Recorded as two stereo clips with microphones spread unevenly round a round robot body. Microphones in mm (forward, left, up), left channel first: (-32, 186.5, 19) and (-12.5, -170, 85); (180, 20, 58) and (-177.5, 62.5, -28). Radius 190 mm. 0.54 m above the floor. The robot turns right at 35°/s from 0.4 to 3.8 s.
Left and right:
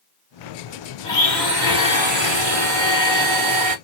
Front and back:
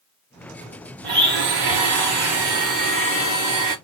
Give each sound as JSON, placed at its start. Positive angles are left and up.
{"t": 1.0, "sound": "a blender", "azimuth_deg": 170, "distance_m": 1.4}